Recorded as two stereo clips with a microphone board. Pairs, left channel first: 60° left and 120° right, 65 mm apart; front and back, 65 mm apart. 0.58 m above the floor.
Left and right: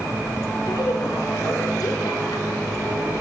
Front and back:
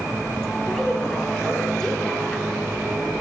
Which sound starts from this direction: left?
A woman speaking, at 0.6 s.